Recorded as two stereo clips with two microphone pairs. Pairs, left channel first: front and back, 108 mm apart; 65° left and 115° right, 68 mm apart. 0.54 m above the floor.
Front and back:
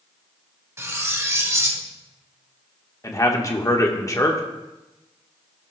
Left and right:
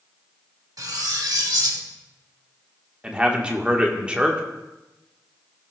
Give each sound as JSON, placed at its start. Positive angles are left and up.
{"t": 0.8, "sound": "cutlery clinking", "azimuth_deg": -115, "distance_m": 0.9}
{"t": 3.0, "sound": "a man speaking", "azimuth_deg": -40, "distance_m": 1.0}